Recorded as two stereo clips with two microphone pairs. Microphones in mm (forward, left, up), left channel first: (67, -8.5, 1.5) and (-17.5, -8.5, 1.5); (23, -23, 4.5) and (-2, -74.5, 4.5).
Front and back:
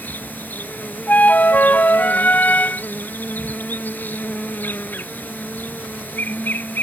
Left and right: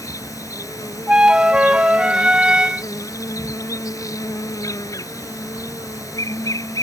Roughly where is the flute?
Ahead right.